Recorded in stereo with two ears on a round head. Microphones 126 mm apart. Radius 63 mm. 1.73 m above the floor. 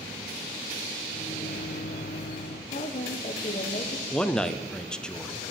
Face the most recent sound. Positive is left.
turn(degrees=5)  # may be behind; listen again after turning